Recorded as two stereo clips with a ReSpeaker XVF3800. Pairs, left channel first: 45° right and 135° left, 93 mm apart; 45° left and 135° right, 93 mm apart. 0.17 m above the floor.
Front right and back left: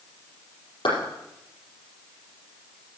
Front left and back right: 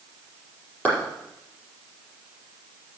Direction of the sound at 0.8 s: 30° right.